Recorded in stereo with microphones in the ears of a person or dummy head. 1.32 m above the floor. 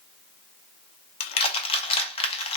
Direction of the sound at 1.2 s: 30° left (ahead or behind).